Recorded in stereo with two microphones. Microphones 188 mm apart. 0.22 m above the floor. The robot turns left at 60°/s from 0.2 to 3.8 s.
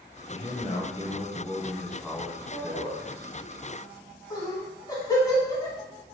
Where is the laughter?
40° left (ahead or behind), 2.0 m; by 5.8 s 20° left (ahead or behind), 2.0 m.